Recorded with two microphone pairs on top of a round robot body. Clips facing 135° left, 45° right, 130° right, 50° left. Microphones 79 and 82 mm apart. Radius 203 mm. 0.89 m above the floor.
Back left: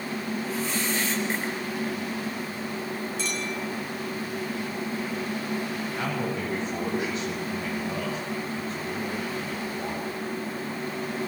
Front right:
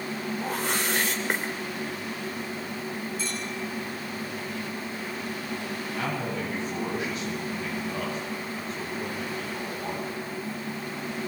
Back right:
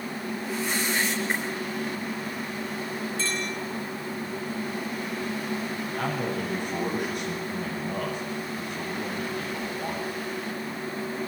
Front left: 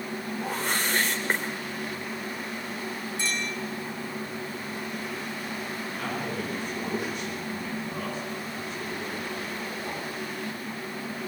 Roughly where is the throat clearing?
I don't hear throat clearing.